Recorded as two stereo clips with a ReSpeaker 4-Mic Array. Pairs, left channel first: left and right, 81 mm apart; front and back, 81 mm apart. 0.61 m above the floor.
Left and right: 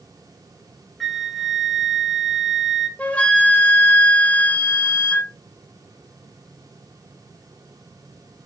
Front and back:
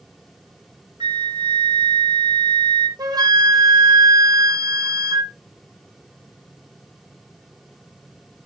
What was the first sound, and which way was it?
A flute, straight behind.